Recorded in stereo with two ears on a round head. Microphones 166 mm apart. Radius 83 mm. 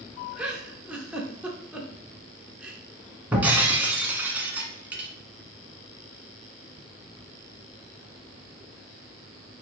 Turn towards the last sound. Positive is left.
turn(degrees=-10)  # may be behind; listen again after turning